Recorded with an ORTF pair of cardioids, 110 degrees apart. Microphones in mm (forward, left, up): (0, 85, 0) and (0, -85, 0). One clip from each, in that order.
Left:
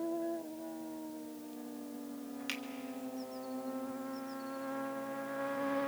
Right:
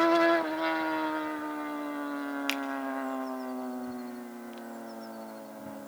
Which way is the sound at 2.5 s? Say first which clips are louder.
Right 7 dB; 45° right.